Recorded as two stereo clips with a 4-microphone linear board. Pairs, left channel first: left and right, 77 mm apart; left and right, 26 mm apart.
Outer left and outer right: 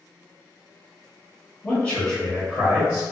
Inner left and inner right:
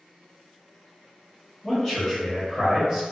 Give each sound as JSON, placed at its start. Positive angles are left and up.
{"t": 1.6, "sound": "a man speaking", "side_deg": 20, "distance_m": 1.1}